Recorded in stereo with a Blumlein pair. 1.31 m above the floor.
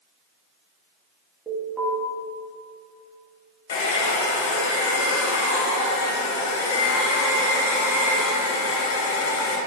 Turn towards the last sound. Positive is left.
turn(degrees=55)